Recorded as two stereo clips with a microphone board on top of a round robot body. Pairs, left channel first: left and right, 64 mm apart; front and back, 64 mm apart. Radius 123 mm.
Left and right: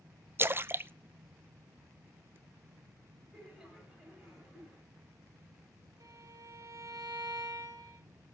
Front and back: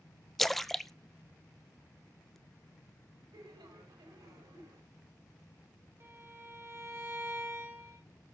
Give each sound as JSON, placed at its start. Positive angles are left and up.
{"t": 0.4, "sound": "a splash", "azimuth_deg": -85, "distance_m": 0.7}
{"t": 3.3, "sound": "laughter", "azimuth_deg": -175, "distance_m": 6.5}
{"t": 6.0, "sound": "a violin", "azimuth_deg": -130, "distance_m": 3.0}